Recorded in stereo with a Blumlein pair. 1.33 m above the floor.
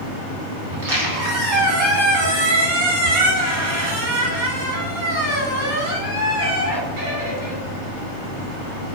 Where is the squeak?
55° right, 1.3 m.